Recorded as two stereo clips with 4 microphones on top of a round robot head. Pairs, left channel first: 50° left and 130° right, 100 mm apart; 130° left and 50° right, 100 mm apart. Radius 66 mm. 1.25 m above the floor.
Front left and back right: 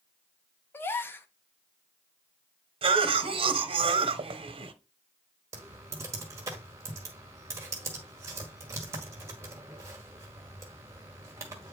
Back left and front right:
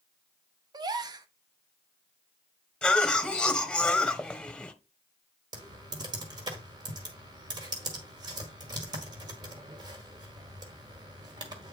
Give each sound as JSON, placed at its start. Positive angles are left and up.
{"t": 0.7, "sound": "a gasp", "azimuth_deg": -15, "distance_m": 0.7}
{"t": 2.8, "sound": "a cough", "azimuth_deg": -150, "distance_m": 1.1}
{"t": 5.5, "sound": "typing on a keyboard", "azimuth_deg": -75, "distance_m": 1.1}